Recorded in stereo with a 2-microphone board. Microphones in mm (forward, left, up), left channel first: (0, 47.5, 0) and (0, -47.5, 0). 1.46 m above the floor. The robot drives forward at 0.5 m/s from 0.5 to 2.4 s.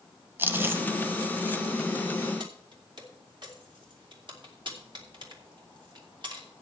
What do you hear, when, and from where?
0.4 s chewing: 25° right (ahead or behind), 1.0 m; by 1.6 s 20° right (ahead or behind), 1.1 m
2.4 s keys jangling: 55° right (ahead or behind), 2.5 m